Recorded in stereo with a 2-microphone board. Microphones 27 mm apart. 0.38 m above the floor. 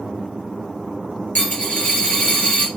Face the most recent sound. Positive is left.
turn(degrees=55)  # may be behind; listen again after turning